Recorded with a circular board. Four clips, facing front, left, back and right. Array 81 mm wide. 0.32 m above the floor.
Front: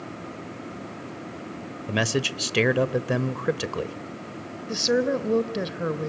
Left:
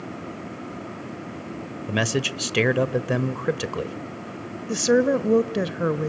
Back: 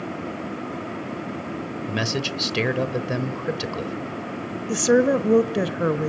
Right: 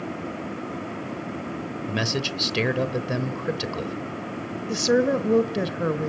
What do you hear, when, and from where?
1.9 s a man speaking: 55° left, 0.9 m
4.7 s a woman speaking: 155° left, 1.0 m